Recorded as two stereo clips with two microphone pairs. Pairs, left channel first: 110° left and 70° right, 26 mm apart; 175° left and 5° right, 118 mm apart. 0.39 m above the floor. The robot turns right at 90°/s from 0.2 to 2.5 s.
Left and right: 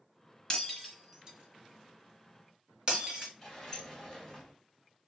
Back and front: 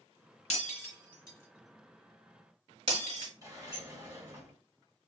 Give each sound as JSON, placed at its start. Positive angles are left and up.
{"t": 0.5, "sound": "breaking glass", "azimuth_deg": 165, "distance_m": 1.4}
{"t": 3.4, "sound": "a sliding door", "azimuth_deg": 40, "distance_m": 1.9}